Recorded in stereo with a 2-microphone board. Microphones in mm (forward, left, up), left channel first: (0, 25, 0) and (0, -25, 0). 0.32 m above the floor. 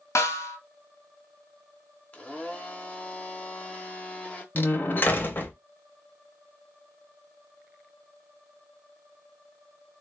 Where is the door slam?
40° left (ahead or behind), 0.7 m.